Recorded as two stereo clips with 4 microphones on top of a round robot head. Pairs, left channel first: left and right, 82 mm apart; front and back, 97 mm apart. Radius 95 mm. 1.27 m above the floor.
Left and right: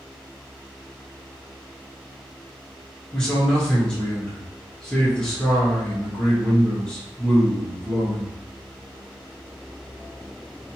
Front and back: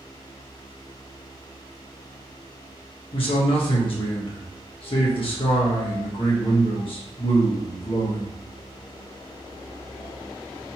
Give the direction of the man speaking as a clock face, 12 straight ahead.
12 o'clock.